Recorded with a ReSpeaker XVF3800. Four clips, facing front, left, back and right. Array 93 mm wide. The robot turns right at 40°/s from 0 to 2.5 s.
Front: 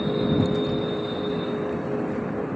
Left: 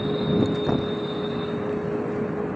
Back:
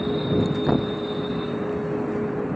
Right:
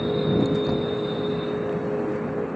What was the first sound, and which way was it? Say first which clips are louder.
A thud: even, back 3 dB; 155° left.